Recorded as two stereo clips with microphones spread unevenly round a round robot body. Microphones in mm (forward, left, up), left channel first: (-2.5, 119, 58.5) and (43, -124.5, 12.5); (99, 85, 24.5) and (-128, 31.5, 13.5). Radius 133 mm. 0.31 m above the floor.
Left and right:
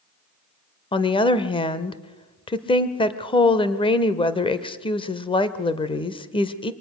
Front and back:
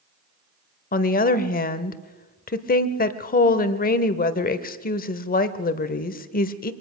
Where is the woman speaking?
30° left, 1.0 m.